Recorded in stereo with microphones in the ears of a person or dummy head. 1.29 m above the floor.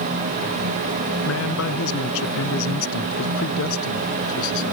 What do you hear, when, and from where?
1.2 s a man speaking: 90° left; by 4.7 s 80° left